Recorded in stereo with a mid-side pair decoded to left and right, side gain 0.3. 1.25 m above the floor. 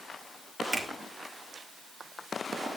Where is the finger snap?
50° right, 3 m.